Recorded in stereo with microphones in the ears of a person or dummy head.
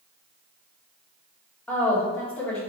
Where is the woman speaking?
10° left (ahead or behind), 1.5 m.